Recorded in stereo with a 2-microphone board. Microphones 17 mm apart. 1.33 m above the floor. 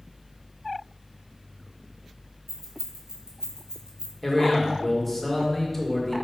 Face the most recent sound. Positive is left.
turn(degrees=10)  # may be behind; listen again after turning